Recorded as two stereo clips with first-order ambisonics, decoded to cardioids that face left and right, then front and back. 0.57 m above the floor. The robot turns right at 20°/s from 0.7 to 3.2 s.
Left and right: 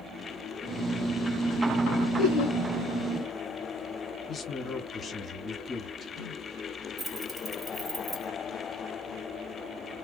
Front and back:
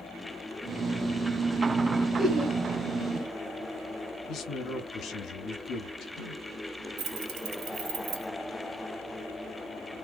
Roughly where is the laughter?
Behind left.